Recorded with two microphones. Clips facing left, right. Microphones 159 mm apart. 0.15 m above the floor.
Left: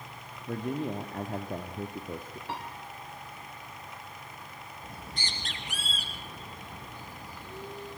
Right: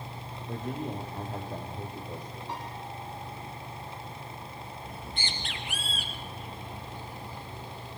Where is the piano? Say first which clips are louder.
Left 1 dB; 80° left, 7.5 m.